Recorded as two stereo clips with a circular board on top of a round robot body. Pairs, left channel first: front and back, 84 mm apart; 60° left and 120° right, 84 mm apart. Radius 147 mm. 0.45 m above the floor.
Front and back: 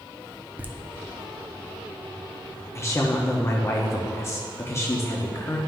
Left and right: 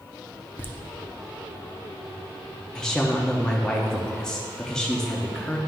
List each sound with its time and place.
0.6 s laughter: 115° left, 1.1 m
2.8 s a woman speaking: 15° right, 1.0 m